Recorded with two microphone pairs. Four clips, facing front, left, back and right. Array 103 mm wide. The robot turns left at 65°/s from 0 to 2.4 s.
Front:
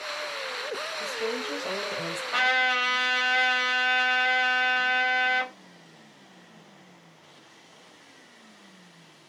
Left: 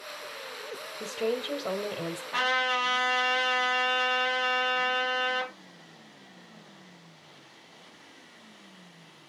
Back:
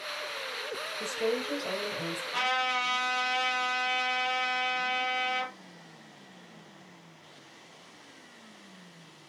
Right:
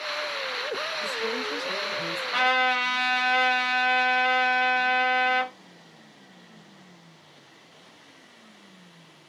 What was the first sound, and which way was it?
A woman speaking, 110° left.